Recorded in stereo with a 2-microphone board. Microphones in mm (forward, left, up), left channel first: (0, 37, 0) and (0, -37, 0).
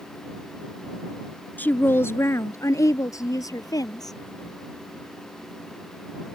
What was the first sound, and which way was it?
A woman speaking, 25° left (ahead or behind).